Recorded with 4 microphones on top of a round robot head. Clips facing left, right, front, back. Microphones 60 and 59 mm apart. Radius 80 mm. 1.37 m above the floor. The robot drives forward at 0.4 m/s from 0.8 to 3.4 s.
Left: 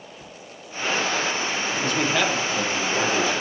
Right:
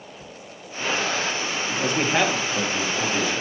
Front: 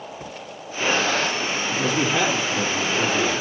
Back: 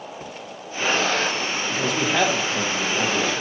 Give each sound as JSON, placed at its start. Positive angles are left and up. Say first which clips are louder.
{"t": 1.7, "sound": "a man speaking", "louder": "right 2 dB, front 1 dB", "azimuth_deg": -150, "distance_m": 1.7}